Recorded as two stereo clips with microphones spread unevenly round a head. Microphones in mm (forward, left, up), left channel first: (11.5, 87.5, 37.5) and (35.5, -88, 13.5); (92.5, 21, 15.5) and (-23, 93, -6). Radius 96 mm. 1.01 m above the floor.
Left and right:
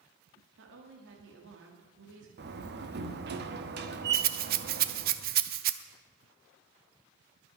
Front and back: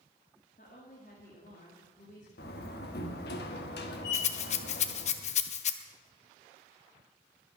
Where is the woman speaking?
85° right, 2 m.